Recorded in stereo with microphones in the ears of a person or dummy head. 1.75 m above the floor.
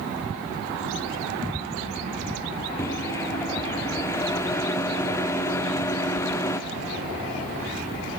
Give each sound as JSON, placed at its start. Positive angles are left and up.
{"t": 2.8, "sound": "a microwave", "side_deg": 15, "distance_m": 0.5}